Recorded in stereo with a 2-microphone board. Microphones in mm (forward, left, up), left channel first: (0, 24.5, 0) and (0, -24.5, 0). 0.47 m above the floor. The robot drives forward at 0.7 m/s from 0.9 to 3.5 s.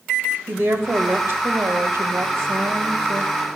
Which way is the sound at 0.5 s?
45° right (ahead or behind).